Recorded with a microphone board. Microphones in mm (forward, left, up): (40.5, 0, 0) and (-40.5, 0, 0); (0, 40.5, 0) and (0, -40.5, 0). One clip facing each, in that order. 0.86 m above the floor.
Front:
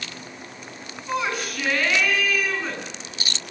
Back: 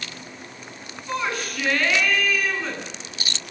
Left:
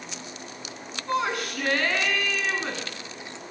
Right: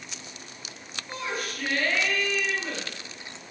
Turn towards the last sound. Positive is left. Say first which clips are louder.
# front 1 dB, left 7 dB
turn(degrees=85)